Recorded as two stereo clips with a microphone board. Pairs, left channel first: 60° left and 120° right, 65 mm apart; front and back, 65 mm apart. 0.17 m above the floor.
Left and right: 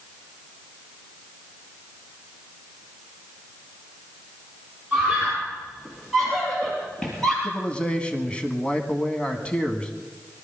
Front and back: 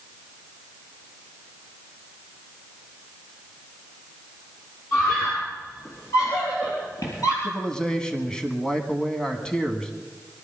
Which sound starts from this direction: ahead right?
A scream, at 4.9 s.